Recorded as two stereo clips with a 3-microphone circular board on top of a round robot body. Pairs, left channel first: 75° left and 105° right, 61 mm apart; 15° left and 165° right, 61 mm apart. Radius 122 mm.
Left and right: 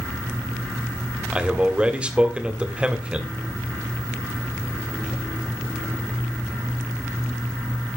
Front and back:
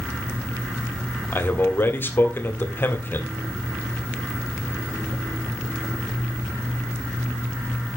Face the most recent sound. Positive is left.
turn(degrees=-35)